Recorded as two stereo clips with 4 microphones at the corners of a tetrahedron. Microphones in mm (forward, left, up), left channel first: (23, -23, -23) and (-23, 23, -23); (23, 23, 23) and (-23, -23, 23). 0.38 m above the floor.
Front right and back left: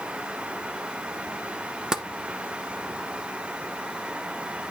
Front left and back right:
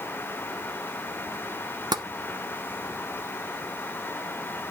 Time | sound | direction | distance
1.9 | tapping | 145° right | 0.9 m